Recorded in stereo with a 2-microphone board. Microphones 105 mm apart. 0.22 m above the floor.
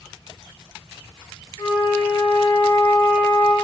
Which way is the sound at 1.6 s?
55° left (ahead or behind).